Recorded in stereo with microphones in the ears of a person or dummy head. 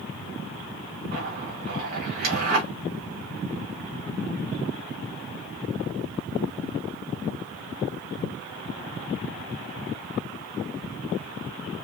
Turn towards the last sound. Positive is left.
turn(degrees=-40)  # may be behind; listen again after turning